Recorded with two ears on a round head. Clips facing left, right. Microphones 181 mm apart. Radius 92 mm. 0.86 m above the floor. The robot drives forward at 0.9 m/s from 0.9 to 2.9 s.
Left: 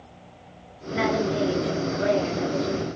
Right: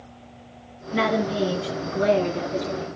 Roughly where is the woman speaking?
Right.